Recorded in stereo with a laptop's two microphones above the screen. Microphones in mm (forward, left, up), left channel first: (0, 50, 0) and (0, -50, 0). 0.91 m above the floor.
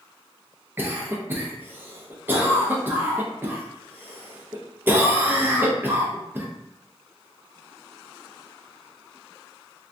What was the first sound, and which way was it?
A cough, 20° right (ahead or behind).